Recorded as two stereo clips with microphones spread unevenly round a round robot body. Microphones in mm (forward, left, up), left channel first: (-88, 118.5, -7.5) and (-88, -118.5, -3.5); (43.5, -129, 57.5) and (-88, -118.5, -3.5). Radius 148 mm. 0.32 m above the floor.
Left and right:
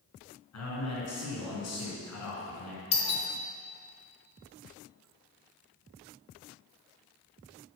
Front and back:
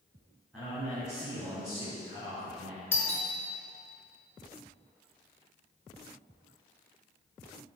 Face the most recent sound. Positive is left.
turn(degrees=110)